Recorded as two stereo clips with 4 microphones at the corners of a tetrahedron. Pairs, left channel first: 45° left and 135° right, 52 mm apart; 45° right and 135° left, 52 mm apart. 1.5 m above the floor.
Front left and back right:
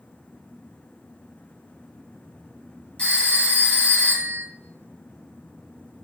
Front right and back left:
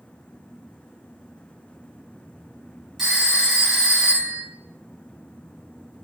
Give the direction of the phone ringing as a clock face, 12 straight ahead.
10 o'clock.